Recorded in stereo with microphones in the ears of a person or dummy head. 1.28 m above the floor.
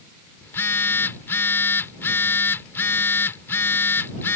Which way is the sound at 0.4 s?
15° left (ahead or behind).